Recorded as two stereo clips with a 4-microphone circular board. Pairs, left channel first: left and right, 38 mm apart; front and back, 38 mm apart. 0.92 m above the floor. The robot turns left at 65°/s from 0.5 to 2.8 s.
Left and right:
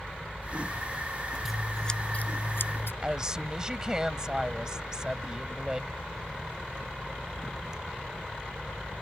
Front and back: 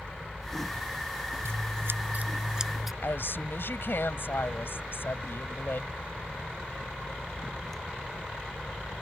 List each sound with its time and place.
1.4 s scissors: 175° right; by 2.9 s 100° left
3.0 s a woman speaking: 20° right